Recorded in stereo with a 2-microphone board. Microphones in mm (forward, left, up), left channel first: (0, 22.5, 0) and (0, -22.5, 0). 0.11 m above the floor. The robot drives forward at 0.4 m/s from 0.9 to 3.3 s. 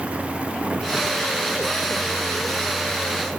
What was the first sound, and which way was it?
Only background noise.